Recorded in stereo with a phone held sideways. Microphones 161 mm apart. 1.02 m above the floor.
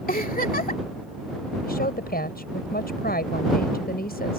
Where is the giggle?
65° left (ahead or behind).